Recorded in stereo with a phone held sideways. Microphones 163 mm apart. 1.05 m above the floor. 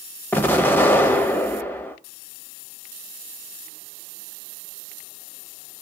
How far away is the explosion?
About 0.6 m.